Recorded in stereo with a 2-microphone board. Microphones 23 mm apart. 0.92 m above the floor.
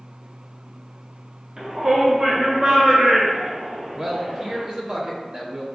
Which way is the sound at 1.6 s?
25° right (ahead or behind).